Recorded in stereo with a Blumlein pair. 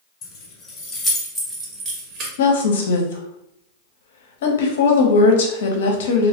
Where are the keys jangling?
30° left, 1.2 m; by 2.3 s 40° right, 1.0 m.